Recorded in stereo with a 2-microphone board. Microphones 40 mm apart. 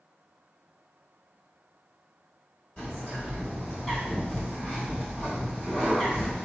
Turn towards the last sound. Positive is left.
turn(degrees=30)  # may be behind; listen again after turning